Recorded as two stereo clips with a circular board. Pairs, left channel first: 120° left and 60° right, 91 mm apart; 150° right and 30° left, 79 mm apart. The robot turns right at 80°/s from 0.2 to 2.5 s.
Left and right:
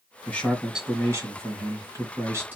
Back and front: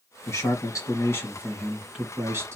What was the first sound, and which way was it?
A man speaking, straight behind.